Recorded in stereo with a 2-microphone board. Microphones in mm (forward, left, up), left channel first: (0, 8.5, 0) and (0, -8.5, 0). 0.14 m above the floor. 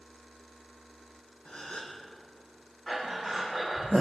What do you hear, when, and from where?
1.4 s a gasp: 80° left, 2 m
2.9 s breathing: 25° left (ahead or behind), 4 m